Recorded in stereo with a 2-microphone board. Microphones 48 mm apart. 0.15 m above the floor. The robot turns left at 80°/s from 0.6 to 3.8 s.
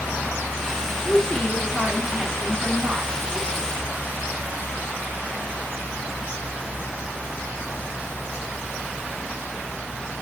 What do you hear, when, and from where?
1.1 s a woman speaking: 25° left (ahead or behind), 1.2 m; by 3.7 s 20° right (ahead or behind), 1.2 m